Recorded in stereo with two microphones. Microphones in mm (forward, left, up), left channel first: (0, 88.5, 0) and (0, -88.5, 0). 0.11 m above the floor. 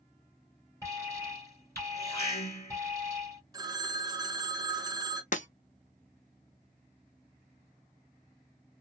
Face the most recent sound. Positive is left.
turn(degrees=45)  # may be behind; listen again after turning